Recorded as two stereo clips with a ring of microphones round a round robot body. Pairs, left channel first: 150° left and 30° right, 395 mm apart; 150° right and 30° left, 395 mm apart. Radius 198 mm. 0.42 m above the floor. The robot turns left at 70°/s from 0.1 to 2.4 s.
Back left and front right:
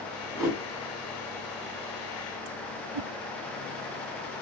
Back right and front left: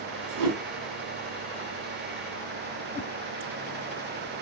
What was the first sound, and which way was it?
A whoosh, 65° left.